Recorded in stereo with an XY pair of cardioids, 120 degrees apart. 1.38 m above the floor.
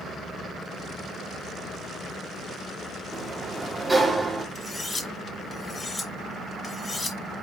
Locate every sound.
3.1 s a sliding door: 15° right, 2 m
4.5 s cutlery clinking: 20° left, 3.5 m